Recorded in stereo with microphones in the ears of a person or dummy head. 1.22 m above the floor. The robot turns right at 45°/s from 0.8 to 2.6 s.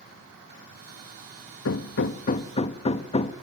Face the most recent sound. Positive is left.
turn(degrees=150)